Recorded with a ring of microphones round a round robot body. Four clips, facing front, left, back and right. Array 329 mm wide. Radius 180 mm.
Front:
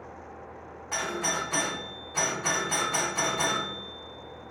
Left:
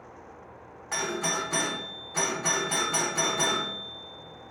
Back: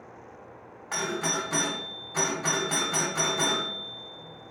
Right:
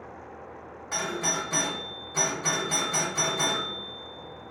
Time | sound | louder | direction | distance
0.9 | a doorbell | even, back 1 dB | 165° left | 1.7 m